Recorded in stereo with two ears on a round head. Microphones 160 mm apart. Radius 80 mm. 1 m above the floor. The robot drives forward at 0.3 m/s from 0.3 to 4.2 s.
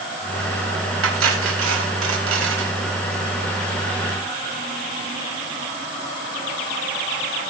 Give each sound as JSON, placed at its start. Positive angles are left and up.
{"t": 1.0, "sound": "cutlery clinking", "side_deg": -85, "distance_m": 4.0}